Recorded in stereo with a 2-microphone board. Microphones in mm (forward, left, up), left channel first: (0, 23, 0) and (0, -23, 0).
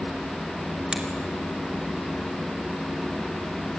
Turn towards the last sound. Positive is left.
turn(degrees=-15)  # may be behind; listen again after turning